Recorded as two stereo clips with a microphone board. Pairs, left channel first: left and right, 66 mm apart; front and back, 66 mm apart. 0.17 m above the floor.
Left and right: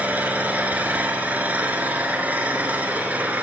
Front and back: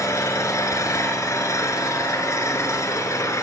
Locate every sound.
0.0 s an engine running: 25° right, 1.1 m